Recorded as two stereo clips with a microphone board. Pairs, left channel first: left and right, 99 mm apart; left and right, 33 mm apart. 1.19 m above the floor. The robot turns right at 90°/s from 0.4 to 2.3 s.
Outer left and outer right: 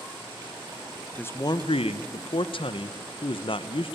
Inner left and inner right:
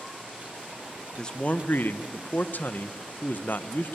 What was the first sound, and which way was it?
A man speaking, 15° left.